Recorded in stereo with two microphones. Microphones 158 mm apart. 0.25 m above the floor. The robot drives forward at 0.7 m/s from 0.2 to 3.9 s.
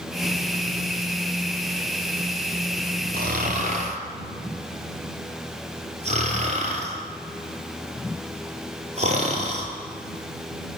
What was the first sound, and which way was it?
Snoring, 70° right (ahead or behind).